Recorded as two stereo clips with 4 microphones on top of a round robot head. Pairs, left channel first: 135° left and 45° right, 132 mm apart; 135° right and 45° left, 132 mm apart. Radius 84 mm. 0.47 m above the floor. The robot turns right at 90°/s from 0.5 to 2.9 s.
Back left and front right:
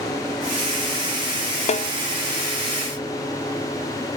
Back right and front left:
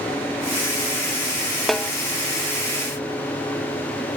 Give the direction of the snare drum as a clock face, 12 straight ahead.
8 o'clock.